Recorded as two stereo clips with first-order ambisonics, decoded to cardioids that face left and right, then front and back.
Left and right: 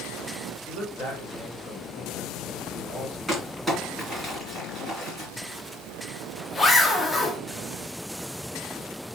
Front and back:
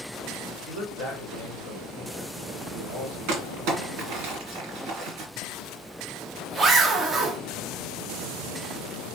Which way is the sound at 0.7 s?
175° right.